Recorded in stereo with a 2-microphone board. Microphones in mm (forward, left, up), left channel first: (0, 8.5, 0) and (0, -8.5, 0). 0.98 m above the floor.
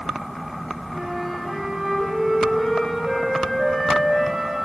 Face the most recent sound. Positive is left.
turn(degrees=-25)  # may be behind; listen again after turning